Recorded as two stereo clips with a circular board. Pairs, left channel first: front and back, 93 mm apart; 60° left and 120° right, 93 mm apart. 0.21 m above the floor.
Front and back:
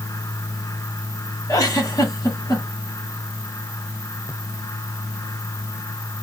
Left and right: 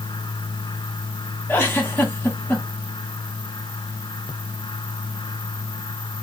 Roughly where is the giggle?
Ahead.